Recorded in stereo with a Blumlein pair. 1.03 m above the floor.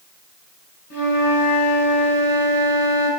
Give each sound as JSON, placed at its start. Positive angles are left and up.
{"t": 0.9, "sound": "a flute", "azimuth_deg": 45, "distance_m": 4.0}